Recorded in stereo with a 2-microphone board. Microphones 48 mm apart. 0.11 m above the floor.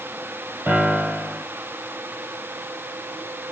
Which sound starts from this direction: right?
A piano, at 0.7 s.